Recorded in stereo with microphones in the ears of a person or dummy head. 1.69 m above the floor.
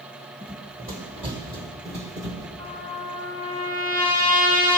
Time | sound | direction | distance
0.4 | running footsteps | 25° right (ahead or behind) | 3 m
2.6 | a trumpet | 20° left (ahead or behind) | 4 m